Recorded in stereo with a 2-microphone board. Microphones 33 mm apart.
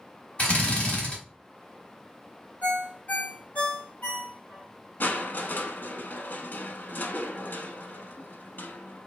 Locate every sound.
0.4 s a drill: 35° left (ahead or behind), 1.8 m
2.6 s a ringtone: 50° left (ahead or behind), 1.2 m
5.0 s crushing: 65° left (ahead or behind), 0.6 m